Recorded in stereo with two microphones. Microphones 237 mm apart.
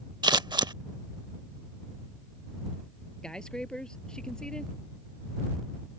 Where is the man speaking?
5° left (ahead or behind).